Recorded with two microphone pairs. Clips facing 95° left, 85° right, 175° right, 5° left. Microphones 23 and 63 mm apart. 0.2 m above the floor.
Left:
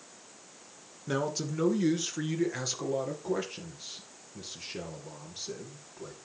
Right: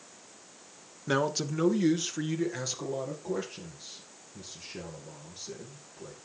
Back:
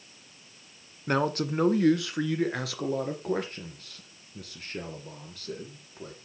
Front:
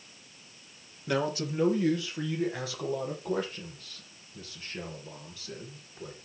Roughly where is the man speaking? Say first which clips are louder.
Right 3 dB, back 3 dB; behind right.